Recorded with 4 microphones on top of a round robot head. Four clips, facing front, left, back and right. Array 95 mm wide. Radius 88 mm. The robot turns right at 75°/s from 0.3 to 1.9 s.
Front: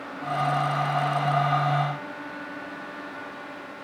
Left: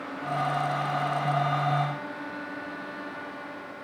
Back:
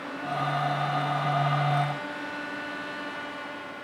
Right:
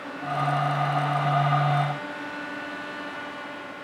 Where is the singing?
No singing in this recording.